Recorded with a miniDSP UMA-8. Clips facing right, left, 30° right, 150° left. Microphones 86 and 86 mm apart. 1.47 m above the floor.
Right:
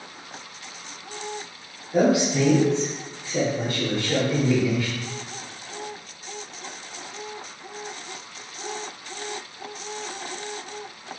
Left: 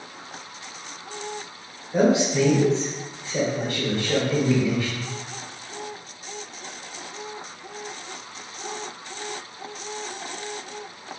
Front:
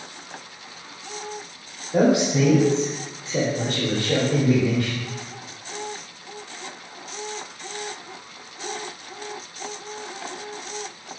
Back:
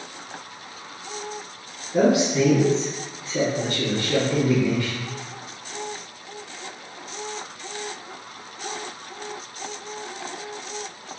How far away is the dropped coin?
I don't hear a dropped coin.